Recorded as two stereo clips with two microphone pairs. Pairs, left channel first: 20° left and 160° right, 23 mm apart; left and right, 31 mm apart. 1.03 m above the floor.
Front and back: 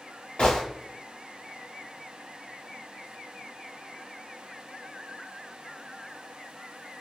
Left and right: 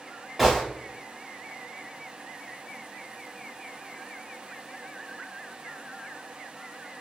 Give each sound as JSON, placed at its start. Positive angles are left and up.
{"t": 0.4, "sound": "a gunshot", "azimuth_deg": 0, "distance_m": 1.3}